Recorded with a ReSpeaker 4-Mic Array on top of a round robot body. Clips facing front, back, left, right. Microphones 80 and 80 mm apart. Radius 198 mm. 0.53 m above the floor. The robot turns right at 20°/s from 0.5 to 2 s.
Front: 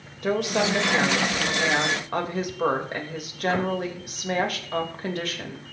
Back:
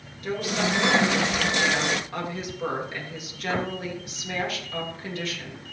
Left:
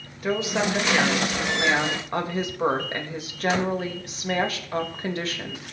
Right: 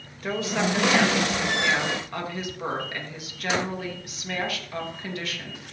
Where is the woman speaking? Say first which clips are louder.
Front 4 dB, left 2 dB; 5° left, 3 m; by 5.7 s 35° left, 3 m.